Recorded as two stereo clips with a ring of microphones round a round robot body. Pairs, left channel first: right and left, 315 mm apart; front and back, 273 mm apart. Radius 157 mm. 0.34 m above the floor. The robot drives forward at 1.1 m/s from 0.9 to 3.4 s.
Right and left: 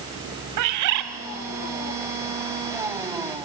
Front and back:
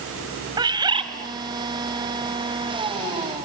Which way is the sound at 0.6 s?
110° left.